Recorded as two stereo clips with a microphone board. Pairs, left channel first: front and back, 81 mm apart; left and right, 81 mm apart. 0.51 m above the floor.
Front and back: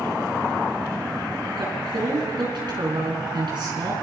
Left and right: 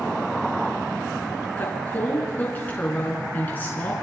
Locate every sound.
1.6 s a woman speaking: 160° left, 5 m